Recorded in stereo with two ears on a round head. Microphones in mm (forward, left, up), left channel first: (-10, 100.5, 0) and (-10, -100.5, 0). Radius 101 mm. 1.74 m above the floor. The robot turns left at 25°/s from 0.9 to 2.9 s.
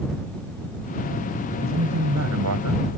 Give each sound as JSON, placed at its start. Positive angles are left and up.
{"t": 1.6, "sound": "a man speaking", "azimuth_deg": -65}